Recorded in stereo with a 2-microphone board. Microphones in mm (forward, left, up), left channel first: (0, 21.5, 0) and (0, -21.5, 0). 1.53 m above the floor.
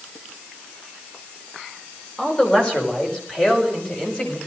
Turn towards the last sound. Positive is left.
turn(degrees=25)  # may be behind; listen again after turning